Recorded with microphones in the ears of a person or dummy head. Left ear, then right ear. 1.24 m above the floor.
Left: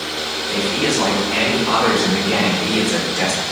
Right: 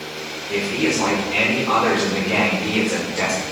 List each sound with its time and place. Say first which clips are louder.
0.5 s a man speaking: left 1 dB; 55° left (ahead or behind), 6 m; by 3.4 s 50° left (ahead or behind), 4.5 m